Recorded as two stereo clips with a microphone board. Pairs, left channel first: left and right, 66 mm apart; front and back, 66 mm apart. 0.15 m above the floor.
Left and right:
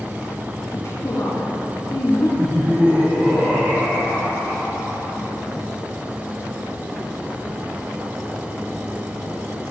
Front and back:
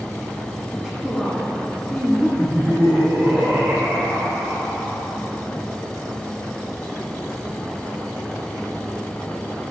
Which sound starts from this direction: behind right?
Laughter, at 2.4 s.